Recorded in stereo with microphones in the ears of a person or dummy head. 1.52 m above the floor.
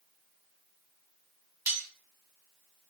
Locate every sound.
1.7 s cutlery clinking: 10° right (ahead or behind), 1.8 m